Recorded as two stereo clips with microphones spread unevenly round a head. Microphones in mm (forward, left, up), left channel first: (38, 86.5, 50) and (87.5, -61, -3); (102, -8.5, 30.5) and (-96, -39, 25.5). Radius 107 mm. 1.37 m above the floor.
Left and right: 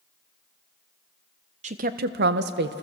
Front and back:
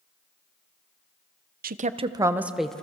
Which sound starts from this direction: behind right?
A woman speaking, at 1.6 s.